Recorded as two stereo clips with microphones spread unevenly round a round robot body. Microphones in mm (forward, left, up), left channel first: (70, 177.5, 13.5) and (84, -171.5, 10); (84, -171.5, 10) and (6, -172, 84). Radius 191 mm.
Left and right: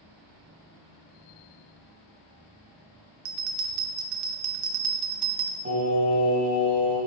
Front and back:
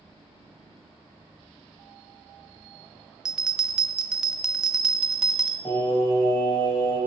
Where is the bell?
80° right, 0.6 m.